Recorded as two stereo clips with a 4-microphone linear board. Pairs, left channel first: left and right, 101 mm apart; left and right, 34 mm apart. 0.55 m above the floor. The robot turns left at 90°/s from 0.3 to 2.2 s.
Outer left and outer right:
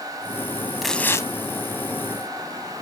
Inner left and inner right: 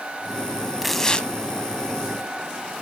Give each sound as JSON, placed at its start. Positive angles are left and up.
{"t": 0.8, "sound": "tearing paper", "azimuth_deg": 180, "distance_m": 0.7}